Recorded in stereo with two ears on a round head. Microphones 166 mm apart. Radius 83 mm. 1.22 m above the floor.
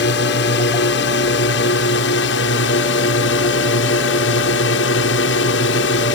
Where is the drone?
65° left (ahead or behind); by 6.2 s 70° left (ahead or behind).